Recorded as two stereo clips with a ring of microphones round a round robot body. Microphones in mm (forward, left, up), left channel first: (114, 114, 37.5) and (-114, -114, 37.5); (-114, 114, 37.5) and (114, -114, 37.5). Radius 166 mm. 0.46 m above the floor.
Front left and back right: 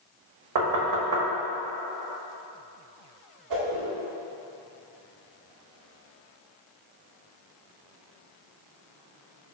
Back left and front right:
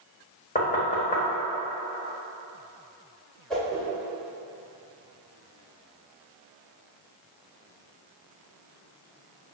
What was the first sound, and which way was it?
Knocking, 160° right.